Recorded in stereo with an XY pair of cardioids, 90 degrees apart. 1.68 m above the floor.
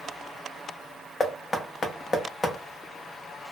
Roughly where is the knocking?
Ahead left.